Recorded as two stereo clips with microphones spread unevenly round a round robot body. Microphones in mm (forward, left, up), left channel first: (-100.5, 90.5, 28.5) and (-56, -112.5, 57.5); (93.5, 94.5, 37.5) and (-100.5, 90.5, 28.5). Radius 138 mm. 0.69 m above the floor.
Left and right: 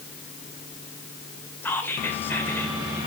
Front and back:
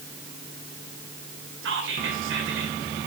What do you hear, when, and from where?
1.6 s whispering: straight behind, 2.5 m